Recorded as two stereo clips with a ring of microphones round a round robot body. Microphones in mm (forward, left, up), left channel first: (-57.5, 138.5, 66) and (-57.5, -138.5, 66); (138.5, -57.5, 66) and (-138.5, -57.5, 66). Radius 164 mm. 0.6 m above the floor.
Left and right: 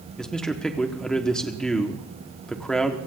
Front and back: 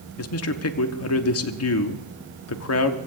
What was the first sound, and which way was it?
A man speaking, 5° left.